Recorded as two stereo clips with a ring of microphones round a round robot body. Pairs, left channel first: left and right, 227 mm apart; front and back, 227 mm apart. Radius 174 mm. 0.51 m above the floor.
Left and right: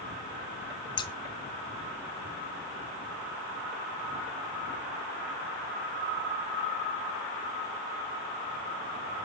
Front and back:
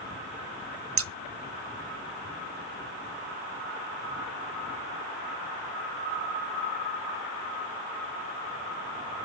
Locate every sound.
1.0 s scissors: 160° left, 0.7 m